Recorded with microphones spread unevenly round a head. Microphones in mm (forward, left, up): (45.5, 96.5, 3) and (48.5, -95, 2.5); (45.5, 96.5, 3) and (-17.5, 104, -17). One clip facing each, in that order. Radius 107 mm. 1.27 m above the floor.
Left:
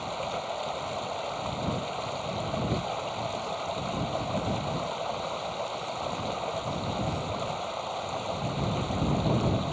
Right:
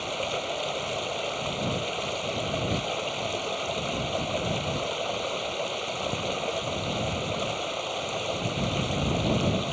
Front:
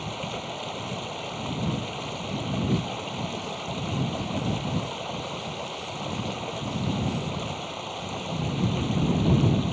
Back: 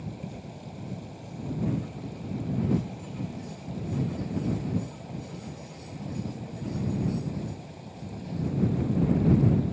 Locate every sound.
0.0 s running water: 35° right